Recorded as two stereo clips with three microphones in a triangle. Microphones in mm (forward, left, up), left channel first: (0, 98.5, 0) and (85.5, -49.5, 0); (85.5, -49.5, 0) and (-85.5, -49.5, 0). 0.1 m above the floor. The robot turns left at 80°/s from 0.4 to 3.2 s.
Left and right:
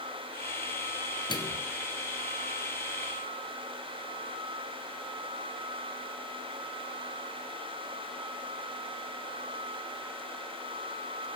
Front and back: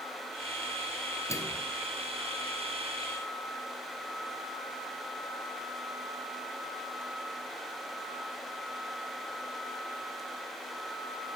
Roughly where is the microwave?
Ahead left.